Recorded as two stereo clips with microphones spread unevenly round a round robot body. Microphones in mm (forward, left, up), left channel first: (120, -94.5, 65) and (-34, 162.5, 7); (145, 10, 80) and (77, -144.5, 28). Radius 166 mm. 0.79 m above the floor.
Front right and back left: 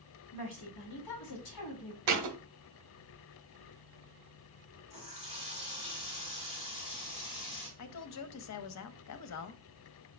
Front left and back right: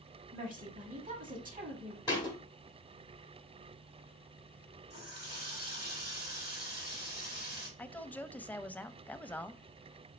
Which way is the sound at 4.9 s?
125° right.